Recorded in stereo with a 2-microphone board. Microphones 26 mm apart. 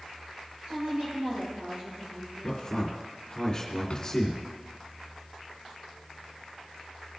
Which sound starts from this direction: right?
A woman speaking, at 0.7 s.